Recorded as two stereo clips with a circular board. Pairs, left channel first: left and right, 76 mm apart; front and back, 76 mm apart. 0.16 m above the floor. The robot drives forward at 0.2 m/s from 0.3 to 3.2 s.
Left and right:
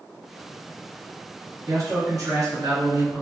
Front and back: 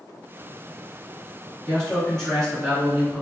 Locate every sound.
1.7 s a man speaking: 80° right, 1.8 m; by 3.2 s 90° right, 1.8 m